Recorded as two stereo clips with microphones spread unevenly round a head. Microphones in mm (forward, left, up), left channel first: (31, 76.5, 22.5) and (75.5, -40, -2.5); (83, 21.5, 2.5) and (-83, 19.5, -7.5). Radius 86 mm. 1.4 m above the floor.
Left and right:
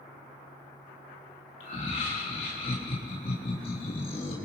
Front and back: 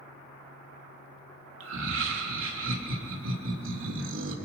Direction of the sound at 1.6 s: 170° left.